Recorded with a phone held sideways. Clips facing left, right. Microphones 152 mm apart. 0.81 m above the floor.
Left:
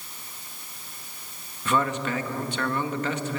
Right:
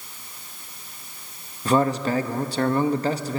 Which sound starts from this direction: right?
A man speaking, at 1.6 s.